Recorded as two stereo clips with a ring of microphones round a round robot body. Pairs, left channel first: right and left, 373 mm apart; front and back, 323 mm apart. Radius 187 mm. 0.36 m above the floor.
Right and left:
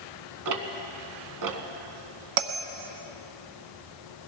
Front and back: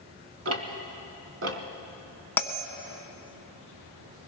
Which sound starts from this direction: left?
A bell, at 2.4 s.